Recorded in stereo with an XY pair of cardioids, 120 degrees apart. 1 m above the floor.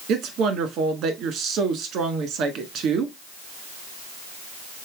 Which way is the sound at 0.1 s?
70° right.